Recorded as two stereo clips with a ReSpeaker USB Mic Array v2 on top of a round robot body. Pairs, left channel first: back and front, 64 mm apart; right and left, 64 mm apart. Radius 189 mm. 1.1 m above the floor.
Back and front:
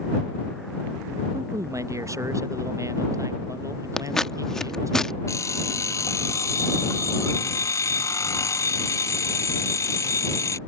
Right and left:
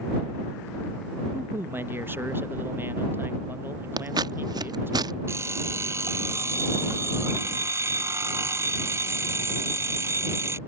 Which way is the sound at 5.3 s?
140° left.